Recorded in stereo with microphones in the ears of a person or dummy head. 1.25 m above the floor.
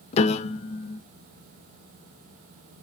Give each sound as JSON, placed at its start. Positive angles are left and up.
{"t": 0.1, "sound": "a piano", "side_deg": 35, "distance_m": 0.6}